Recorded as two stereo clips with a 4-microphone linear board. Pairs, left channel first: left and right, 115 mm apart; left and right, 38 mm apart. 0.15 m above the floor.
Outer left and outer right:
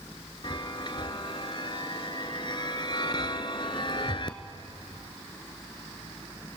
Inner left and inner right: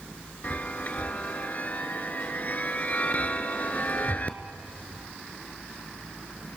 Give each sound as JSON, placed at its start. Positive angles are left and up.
{"t": 0.4, "sound": "a chime", "side_deg": 45, "distance_m": 1.0}